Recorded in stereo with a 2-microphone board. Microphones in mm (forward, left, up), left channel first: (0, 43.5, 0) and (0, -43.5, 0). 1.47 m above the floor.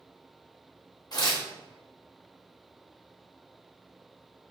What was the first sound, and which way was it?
Tearing paper, 50° left (ahead or behind).